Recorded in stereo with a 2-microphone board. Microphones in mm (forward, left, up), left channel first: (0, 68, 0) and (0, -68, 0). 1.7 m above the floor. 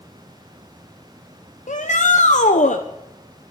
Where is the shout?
60° left (ahead or behind), 1.0 m.